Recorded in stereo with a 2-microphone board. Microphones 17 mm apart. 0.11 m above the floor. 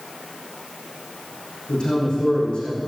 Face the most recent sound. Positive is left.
turn(degrees=70)  # may be behind; listen again after turning